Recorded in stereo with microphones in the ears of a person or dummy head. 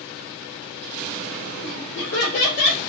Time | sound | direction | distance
1.6 | laughter | 80° left | 3 m